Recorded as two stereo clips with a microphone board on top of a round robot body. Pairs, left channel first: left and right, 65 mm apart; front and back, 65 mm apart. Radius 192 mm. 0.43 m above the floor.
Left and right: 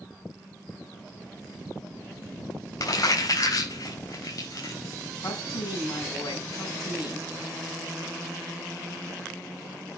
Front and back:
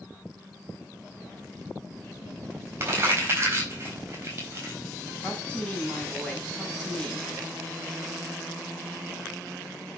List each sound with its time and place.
2.8 s crumpling: 120° left, 6.5 m
5.2 s a woman speaking: 75° left, 5 m